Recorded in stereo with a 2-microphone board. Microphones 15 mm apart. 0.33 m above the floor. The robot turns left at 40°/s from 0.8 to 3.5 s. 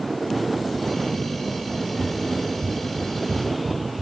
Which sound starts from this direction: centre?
Running footsteps, at 1.7 s.